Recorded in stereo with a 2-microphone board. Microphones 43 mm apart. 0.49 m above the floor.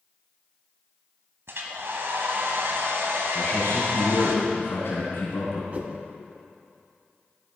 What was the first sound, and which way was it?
A hair dryer, 65° right (ahead or behind).